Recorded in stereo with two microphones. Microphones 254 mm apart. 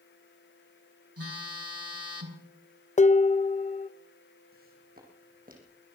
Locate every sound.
1.2 s a phone buzzing: 65° right (ahead or behind), 2.5 m
3.0 s dishes clattering: 30° left (ahead or behind), 0.6 m
4.5 s footsteps: 35° right (ahead or behind), 4.5 m